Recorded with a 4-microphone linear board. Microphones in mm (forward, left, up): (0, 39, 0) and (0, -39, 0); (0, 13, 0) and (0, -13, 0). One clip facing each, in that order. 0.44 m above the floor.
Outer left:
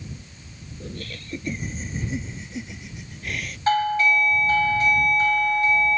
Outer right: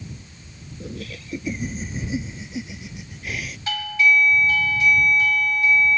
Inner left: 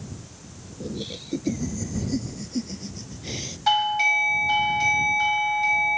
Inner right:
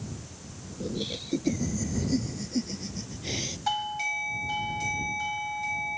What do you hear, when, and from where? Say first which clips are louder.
0.8 s laughter: outer right 2 dB, even; 5° right (ahead or behind)
3.7 s a doorbell: outer left 2 dB, inner left 10 dB; 40° left (ahead or behind)